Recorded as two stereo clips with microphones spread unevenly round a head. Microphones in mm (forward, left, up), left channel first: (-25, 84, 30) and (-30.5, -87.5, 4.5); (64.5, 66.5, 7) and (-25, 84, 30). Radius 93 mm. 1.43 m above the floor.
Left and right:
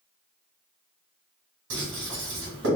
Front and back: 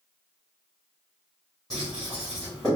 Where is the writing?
105° right, 1.8 m.